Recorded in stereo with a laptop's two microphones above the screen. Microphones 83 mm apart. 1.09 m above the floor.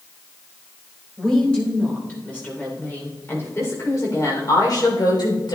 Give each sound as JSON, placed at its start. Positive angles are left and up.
{"t": 1.2, "sound": "a woman speaking", "side_deg": 10, "distance_m": 4.0}